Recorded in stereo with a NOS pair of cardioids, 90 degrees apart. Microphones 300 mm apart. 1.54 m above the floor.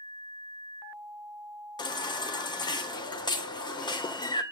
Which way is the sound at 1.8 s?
15° left.